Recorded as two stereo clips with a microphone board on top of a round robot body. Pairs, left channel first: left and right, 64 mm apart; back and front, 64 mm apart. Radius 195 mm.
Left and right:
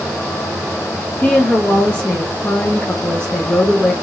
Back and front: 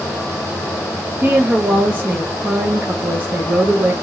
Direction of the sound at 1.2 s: 35° left.